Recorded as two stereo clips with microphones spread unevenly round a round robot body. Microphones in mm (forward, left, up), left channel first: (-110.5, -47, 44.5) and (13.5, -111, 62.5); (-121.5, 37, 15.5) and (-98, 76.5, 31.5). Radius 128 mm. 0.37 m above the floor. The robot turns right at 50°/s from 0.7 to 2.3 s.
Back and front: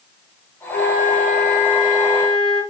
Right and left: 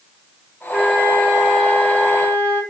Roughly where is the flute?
Behind left.